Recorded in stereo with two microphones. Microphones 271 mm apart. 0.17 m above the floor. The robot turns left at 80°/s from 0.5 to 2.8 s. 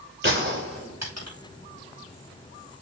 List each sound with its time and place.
0.2 s a gunshot: 45° right (ahead or behind), 6.5 m; by 1.4 s 65° right (ahead or behind), 6.5 m